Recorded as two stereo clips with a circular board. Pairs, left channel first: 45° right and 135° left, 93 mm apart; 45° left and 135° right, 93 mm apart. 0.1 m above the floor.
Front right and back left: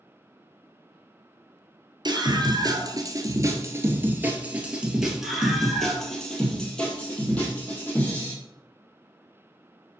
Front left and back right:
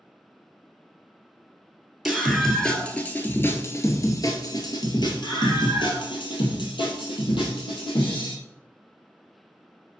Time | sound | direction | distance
2.0 | a scream | 135° left | 2.0 m